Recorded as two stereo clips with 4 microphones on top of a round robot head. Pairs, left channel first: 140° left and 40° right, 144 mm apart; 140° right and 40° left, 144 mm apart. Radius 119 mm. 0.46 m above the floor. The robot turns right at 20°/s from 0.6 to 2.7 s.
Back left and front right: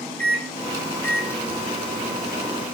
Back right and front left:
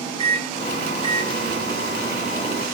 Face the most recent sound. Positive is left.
turn(degrees=100)